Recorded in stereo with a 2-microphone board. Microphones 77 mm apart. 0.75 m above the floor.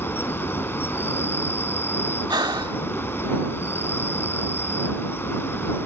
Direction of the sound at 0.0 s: 30° left (ahead or behind).